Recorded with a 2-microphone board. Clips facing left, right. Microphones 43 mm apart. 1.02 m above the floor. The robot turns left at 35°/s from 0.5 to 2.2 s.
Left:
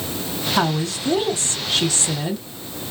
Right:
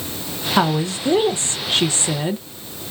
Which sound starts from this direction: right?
A woman speaking, at 0.6 s.